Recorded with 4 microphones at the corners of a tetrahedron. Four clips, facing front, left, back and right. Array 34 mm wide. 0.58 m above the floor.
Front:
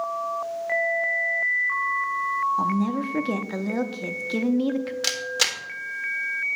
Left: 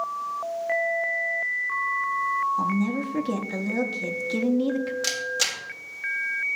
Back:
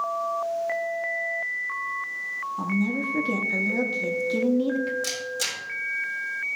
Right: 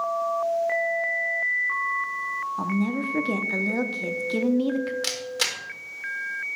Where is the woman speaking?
30° right, 0.6 m.